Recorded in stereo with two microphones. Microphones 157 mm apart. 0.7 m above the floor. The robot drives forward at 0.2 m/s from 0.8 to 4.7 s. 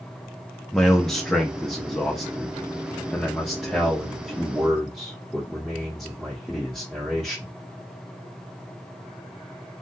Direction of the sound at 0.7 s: 5° left (ahead or behind).